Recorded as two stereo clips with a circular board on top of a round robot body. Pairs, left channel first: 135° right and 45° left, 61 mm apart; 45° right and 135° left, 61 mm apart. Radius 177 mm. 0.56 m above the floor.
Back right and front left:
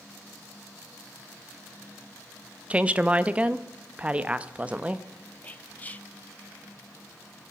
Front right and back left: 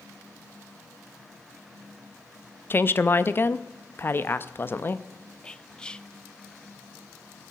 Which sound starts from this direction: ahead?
A woman speaking, at 2.7 s.